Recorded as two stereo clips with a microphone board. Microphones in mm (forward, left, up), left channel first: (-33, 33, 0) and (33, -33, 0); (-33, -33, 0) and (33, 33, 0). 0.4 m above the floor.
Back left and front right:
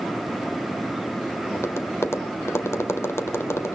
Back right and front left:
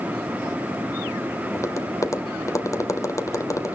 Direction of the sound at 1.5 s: 175° right.